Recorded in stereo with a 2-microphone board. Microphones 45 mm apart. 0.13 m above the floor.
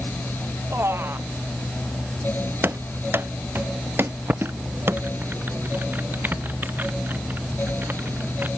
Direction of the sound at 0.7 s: 65° right (ahead or behind).